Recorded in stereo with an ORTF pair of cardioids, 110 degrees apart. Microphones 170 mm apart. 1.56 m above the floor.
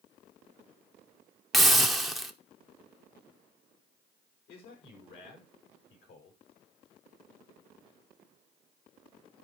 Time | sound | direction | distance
1.5 | a hiss | straight ahead | 0.9 m
4.5 | a man speaking | 70° left | 5 m